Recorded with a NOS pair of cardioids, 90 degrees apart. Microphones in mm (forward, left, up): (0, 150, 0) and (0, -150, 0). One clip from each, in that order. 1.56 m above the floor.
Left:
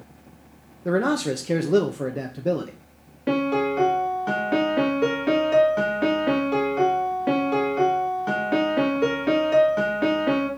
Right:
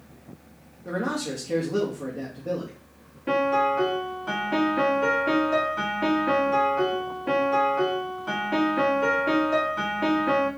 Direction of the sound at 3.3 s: 45° left.